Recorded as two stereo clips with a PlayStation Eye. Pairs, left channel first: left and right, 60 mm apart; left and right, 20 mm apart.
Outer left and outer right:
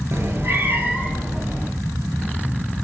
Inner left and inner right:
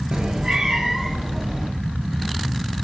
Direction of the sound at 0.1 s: 50° right (ahead or behind).